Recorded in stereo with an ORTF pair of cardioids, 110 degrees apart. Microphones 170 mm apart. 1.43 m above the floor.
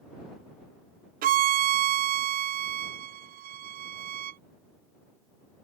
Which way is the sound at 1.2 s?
60° right.